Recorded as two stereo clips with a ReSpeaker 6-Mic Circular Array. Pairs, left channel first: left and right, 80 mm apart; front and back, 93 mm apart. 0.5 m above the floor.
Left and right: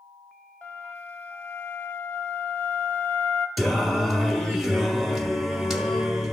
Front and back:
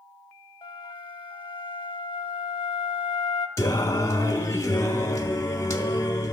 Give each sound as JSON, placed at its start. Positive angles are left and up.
{"t": 0.6, "sound": "a flute", "azimuth_deg": 20, "distance_m": 0.6}
{"t": 3.6, "sound": "singing", "azimuth_deg": 0, "distance_m": 0.7}